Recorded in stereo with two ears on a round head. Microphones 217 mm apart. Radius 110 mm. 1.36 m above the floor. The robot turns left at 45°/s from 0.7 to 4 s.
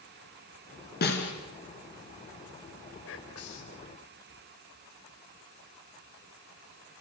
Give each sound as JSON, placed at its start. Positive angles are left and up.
{"t": 1.0, "sound": "a snare drum", "side_deg": 45, "distance_m": 4.0}
{"t": 3.1, "sound": "whispering", "azimuth_deg": 125, "distance_m": 5.5}